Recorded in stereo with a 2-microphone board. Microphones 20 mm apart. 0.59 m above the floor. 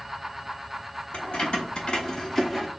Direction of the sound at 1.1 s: 60° left (ahead or behind).